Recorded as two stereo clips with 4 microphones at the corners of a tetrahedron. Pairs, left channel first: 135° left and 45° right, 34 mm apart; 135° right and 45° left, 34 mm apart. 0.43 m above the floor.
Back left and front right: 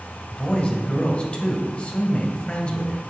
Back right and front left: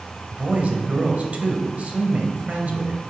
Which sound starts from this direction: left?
A man speaking, at 0.3 s.